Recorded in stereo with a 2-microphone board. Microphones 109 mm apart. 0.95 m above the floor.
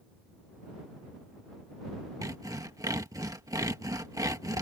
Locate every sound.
2.2 s sawing: 30° right (ahead or behind)